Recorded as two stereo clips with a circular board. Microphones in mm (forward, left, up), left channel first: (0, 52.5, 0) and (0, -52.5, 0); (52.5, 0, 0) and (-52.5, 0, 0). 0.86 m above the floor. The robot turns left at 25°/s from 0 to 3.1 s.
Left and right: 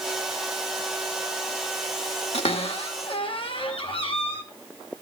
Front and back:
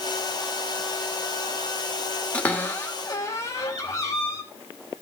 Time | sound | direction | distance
2.3 | a cupboard door | 75° left | 1.9 m